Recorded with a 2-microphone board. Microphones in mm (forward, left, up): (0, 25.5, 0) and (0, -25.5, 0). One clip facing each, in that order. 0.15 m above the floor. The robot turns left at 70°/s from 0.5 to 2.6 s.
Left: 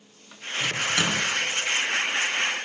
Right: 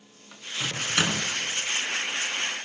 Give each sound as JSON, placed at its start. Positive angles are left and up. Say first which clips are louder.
{"t": 0.6, "sound": "a microwave", "louder": "left 2 dB", "side_deg": -35, "distance_m": 1.1}